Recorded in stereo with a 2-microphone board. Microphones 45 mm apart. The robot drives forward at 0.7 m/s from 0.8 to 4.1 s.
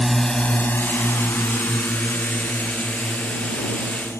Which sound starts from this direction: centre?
A drone, at 0.0 s.